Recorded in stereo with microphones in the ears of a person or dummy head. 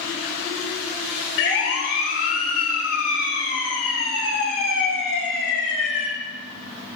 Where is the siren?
75° left (ahead or behind), 3 m; by 6.1 s 60° left (ahead or behind), 7 m.